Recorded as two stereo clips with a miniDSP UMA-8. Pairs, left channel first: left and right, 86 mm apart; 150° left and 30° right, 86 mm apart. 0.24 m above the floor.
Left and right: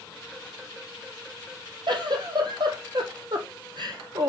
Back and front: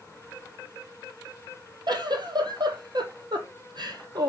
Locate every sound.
1.9 s a giggle: 60° right, 1.4 m